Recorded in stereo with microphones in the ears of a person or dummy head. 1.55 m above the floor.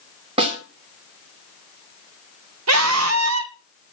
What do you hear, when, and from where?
0.4 s a snare drum: 35° right (ahead or behind), 2.5 m
2.7 s a scream: 85° right, 1.4 m